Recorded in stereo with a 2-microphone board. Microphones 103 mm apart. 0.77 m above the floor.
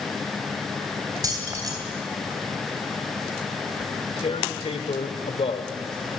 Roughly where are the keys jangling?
Right.